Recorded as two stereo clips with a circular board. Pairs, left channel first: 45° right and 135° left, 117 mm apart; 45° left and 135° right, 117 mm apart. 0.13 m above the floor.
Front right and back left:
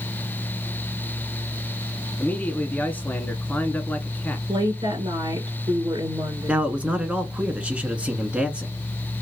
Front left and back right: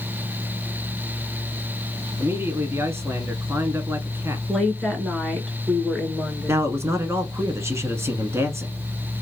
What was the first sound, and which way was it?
A man speaking, 100° right.